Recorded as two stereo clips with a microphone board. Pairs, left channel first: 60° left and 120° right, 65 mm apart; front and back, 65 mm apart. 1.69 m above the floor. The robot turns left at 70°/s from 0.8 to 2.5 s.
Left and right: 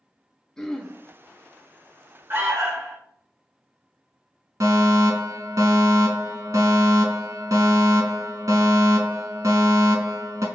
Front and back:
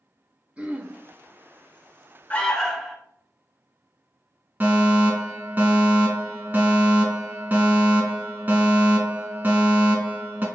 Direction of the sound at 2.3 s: 70° right.